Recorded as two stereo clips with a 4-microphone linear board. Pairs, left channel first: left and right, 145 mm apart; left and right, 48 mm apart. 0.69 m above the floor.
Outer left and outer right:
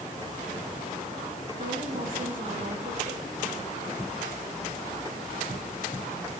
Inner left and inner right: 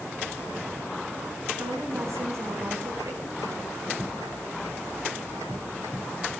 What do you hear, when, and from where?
1.6 s a woman speaking: 80° right, 5 m